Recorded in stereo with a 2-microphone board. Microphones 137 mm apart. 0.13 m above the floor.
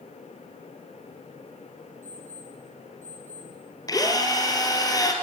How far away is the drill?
About 3 m.